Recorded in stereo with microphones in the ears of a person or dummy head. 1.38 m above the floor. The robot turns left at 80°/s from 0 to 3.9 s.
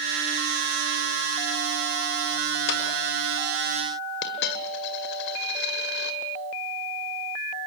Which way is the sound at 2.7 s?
75° left (ahead or behind).